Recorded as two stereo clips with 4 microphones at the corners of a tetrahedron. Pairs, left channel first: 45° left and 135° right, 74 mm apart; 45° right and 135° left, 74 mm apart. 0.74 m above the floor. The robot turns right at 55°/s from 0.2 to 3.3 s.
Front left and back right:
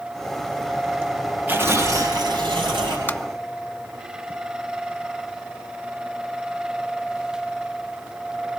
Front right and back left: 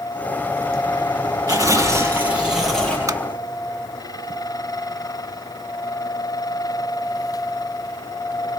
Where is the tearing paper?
160° left, 9.5 m; by 3.0 s 120° right, 9.5 m.